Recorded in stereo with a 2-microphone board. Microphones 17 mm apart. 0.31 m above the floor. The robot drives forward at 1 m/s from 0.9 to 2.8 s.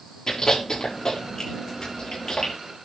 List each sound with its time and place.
0.3 s chewing: 35° left (ahead or behind), 8 m; by 2.5 s 45° left (ahead or behind), 7 m